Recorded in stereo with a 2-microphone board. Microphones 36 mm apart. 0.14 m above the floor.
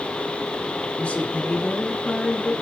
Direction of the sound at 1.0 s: 35° left (ahead or behind).